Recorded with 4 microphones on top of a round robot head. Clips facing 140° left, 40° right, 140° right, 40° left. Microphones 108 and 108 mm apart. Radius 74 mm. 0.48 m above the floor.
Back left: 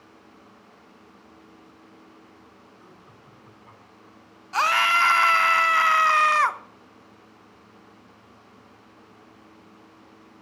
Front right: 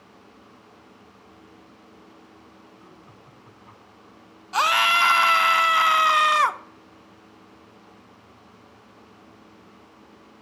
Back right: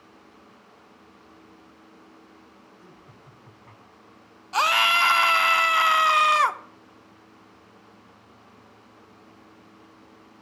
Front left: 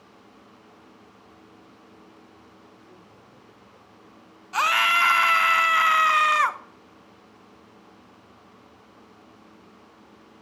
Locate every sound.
2.8 s laughter: 130° right, 4.5 m
4.5 s a scream: 100° right, 0.8 m